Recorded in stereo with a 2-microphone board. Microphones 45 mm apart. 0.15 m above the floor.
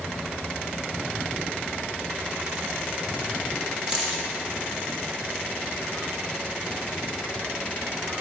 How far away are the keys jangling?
About 3 m.